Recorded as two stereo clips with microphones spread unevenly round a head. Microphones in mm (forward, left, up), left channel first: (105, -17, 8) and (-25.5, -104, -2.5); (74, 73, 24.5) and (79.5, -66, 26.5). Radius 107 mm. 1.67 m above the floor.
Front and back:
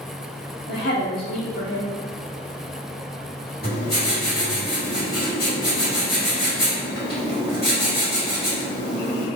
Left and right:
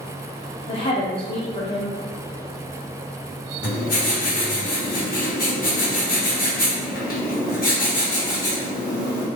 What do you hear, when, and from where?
0.7 s a woman speaking: 45° left, 0.6 m
3.6 s writing: 80° left, 1.7 m